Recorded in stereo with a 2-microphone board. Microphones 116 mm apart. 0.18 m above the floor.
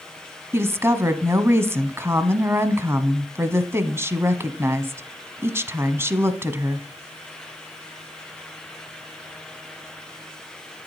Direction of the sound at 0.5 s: 20° right (ahead or behind).